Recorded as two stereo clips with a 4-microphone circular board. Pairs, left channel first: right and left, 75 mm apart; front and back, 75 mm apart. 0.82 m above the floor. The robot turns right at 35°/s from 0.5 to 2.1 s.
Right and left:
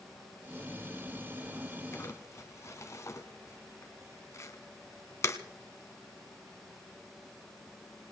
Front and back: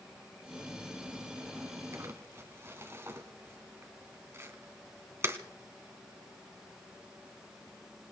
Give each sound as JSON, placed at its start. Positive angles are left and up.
{"t": 1.9, "sound": "crumpling", "azimuth_deg": -135, "distance_m": 1.3}